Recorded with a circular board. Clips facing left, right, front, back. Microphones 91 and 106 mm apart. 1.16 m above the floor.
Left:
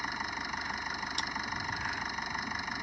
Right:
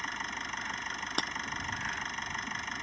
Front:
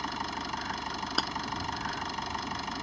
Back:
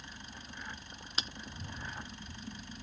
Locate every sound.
0.0 s an engine running: 5° left
1.2 s breaking glass: 50° right